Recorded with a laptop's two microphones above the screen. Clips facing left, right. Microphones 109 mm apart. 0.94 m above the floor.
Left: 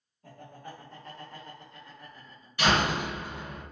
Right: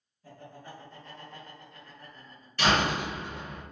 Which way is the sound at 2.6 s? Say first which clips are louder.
Even; 10° left (ahead or behind).